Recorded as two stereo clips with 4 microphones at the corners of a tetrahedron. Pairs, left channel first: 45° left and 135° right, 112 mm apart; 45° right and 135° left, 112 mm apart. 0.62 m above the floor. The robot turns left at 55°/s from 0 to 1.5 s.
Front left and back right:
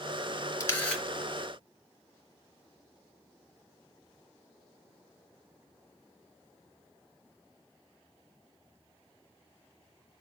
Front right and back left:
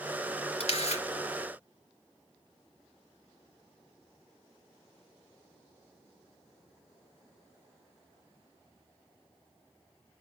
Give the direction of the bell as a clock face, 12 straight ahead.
I don't hear a bell.